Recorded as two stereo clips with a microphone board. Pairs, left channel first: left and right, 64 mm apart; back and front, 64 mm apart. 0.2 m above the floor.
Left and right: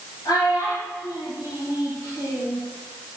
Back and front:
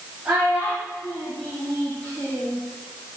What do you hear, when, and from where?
0.2 s a child speaking: 65° left, 4 m; by 2.6 s 115° left, 2.5 m